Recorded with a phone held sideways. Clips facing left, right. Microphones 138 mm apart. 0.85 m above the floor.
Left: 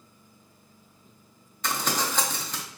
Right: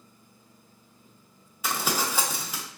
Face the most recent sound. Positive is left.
turn(degrees=-10)  # may be behind; listen again after turning